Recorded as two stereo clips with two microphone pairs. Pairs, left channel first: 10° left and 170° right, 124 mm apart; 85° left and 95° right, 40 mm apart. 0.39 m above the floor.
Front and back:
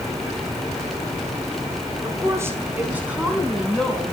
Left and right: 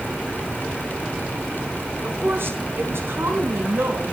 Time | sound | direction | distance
2.0 | a woman speaking | 105° right | 4.5 m